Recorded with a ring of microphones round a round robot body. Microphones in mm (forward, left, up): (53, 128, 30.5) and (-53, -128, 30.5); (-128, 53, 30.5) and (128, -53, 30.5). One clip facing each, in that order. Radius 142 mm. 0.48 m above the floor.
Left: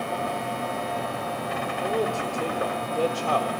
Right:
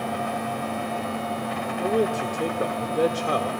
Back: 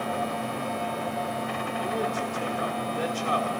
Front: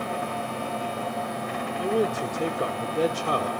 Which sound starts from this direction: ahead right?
A man speaking, at 1.8 s.